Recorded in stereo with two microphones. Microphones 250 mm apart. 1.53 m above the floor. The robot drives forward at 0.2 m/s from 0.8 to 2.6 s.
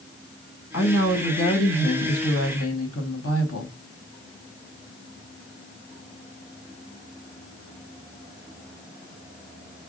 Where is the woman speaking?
80° left, 1.4 m; by 3.8 s 70° left (ahead or behind), 1.5 m.